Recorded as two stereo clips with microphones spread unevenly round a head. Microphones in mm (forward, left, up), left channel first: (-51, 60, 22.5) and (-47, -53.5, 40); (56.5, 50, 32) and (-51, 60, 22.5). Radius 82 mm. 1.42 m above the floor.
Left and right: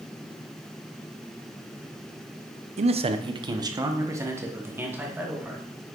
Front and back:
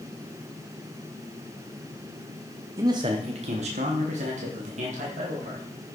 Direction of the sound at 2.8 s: 115° right.